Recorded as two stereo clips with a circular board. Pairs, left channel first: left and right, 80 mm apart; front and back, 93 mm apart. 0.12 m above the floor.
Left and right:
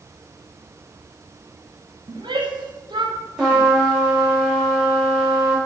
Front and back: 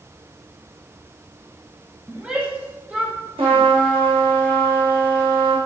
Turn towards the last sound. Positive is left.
turn(degrees=-170)